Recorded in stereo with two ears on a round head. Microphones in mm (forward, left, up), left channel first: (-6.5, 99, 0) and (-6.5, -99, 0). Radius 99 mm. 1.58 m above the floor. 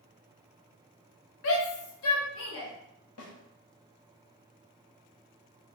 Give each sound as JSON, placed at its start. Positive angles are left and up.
{"t": 1.4, "sound": "a shout", "side_deg": 60, "distance_m": 0.7}
{"t": 3.2, "sound": "a snare drum", "side_deg": 75, "distance_m": 0.9}